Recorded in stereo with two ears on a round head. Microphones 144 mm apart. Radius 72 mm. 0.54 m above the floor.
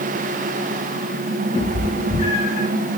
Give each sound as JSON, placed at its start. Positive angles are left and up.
{"t": 1.6, "sound": "a cat meowing", "side_deg": 35, "distance_m": 2.5}